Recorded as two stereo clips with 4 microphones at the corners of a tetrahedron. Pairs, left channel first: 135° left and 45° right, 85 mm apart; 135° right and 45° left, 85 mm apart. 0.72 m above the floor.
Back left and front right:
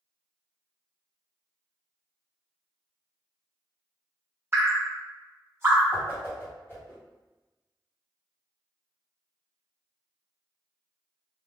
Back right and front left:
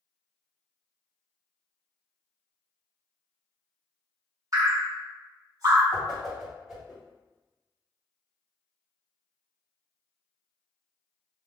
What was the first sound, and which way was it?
Dripping, 10° left.